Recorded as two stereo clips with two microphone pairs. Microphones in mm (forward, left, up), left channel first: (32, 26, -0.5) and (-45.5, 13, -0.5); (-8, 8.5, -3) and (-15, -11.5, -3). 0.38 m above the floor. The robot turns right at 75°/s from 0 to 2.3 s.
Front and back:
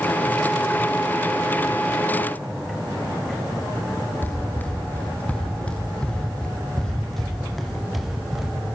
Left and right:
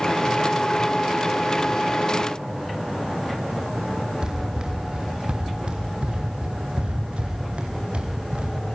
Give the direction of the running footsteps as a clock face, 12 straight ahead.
2 o'clock.